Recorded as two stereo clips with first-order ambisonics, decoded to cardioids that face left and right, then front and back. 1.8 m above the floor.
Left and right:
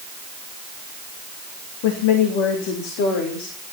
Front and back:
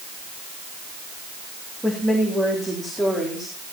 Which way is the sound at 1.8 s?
90° left.